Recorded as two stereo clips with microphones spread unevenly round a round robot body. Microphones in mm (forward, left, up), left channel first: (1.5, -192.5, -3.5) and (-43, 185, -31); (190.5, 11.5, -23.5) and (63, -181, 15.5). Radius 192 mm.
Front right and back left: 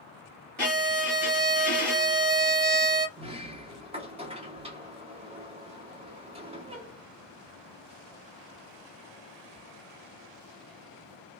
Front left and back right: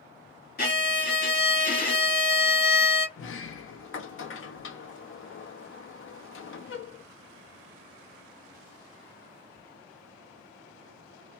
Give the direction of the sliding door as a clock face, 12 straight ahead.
11 o'clock.